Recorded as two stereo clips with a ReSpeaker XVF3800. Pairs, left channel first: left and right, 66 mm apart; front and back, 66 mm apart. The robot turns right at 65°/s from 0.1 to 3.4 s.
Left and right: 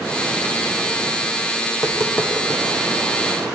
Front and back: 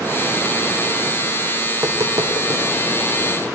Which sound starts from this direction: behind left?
Tapping, at 1.7 s.